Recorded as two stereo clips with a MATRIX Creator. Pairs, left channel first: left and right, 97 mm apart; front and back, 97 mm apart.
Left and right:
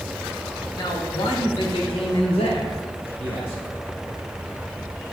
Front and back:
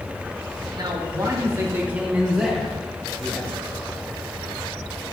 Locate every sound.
0.8 s a man speaking: 140° left, 2 m; by 3.6 s 75° left, 3.5 m